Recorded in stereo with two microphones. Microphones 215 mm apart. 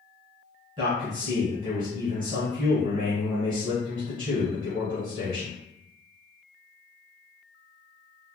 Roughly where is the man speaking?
Right.